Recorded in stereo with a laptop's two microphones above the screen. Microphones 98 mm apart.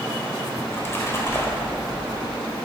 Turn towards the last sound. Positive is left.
turn(degrees=25)  # may be behind; listen again after turning